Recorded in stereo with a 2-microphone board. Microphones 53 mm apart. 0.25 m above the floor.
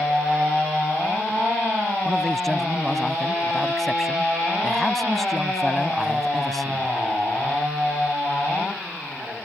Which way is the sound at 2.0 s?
5° left (ahead or behind).